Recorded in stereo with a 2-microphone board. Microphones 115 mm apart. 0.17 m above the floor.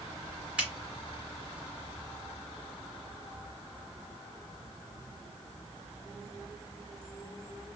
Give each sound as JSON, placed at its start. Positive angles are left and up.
{"t": 0.6, "sound": "a finger snap", "side_deg": -10, "distance_m": 1.9}